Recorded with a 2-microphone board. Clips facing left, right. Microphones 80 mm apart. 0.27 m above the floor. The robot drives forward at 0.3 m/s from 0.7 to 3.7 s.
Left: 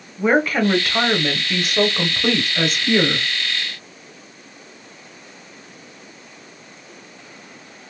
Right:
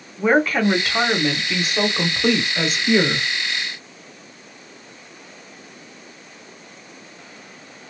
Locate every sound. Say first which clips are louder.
0.2 s a woman speaking: even; centre (ahead or behind), 0.9 m